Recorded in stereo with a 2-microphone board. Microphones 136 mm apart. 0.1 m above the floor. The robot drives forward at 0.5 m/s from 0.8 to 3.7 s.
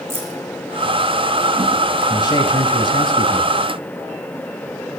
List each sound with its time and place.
0.1 s keys jangling: 20° right (ahead or behind), 3.5 m
2.1 s a man speaking: 35° left (ahead or behind), 2 m; by 3.5 s 40° left (ahead or behind), 1.9 m